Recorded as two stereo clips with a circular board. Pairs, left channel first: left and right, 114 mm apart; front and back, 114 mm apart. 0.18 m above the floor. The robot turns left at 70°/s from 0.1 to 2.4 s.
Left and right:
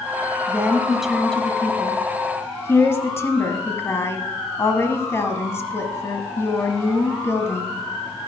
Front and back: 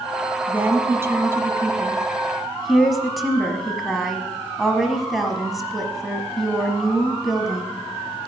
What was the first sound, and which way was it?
A woman speaking, 135° right.